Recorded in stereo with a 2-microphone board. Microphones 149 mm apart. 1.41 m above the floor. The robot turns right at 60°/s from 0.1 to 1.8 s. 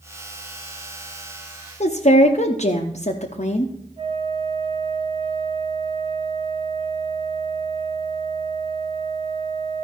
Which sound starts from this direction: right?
A flute, at 4.0 s.